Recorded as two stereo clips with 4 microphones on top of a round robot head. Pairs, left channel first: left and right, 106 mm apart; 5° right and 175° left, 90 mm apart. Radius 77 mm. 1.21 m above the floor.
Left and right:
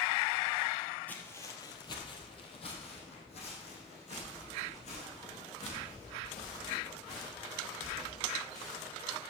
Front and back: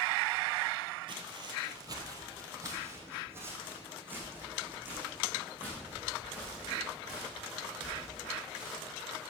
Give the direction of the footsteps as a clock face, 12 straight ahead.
7 o'clock.